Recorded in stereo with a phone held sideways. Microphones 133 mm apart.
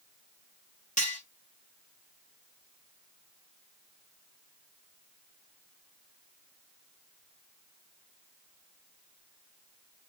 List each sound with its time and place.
1.0 s cutlery clinking: 65° left (ahead or behind), 2.5 m